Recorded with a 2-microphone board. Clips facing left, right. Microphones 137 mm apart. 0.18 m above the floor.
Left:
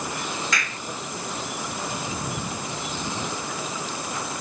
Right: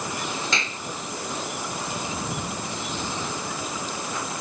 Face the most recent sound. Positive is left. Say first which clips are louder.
# even
turn(degrees=-25)  # may be behind; listen again after turning